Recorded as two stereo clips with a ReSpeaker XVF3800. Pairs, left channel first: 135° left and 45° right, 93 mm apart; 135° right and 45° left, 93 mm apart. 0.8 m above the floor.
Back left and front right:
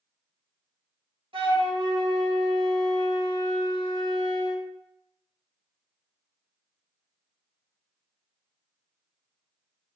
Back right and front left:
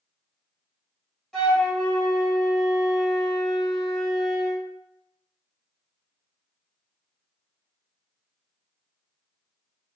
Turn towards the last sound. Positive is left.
turn(degrees=-45)